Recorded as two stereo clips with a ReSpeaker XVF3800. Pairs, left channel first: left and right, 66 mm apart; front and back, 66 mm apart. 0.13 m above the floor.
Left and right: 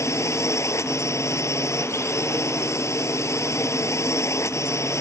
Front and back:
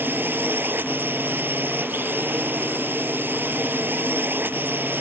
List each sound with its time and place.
0.0 s a drone: 125° left